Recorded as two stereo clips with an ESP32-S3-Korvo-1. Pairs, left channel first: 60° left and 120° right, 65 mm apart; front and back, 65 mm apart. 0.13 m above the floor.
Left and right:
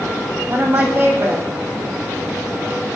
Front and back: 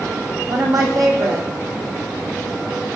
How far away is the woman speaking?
About 4.5 m.